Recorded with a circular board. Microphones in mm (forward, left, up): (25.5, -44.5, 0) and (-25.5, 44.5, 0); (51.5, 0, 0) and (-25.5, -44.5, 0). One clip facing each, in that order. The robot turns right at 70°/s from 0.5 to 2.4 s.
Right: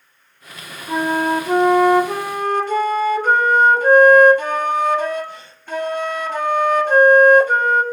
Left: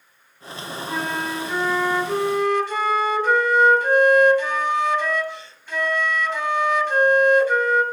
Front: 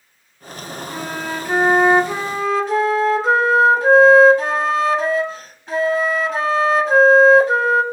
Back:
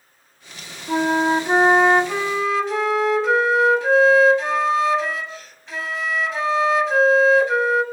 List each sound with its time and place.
0.9 s a flute: 125° right, 0.7 m; by 7.8 s 15° right, 0.7 m